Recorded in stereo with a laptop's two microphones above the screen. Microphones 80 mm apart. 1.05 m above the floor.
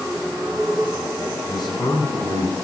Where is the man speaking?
60° left (ahead or behind), 7 m; by 2.5 s 55° left (ahead or behind), 8 m.